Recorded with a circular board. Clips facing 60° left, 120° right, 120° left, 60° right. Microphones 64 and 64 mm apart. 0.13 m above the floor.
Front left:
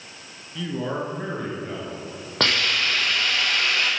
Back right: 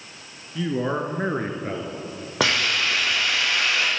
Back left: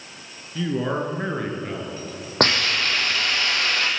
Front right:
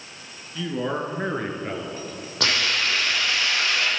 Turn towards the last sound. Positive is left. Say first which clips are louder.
# back right 1 dB, back left 3 dB
turn(degrees=160)